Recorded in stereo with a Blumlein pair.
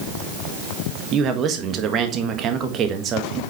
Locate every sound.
1.1 s a man speaking: 30° right, 1.4 m